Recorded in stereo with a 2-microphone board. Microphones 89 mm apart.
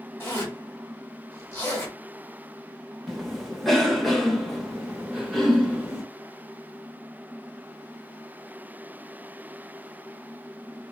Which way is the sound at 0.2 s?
25° left (ahead or behind).